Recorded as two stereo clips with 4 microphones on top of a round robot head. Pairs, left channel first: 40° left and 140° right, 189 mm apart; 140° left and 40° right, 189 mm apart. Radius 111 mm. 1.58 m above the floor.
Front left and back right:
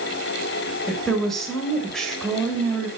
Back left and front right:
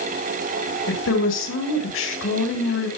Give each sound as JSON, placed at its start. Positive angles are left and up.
{"t": 0.9, "sound": "a woman speaking", "azimuth_deg": 125, "distance_m": 6.5}